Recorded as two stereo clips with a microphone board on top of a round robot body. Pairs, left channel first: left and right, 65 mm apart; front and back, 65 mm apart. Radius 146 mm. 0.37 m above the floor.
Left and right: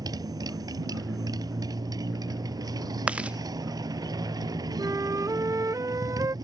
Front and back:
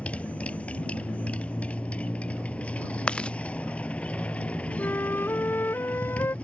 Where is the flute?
55° right.